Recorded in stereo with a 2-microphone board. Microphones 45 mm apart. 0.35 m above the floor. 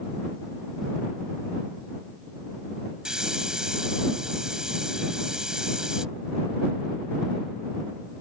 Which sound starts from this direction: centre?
A hiss, at 3.0 s.